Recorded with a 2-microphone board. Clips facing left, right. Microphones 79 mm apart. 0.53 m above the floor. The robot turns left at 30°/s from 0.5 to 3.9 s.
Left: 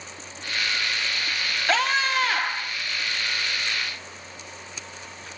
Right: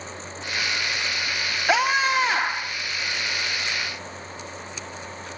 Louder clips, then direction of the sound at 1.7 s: Right 3 dB; 15° right (ahead or behind).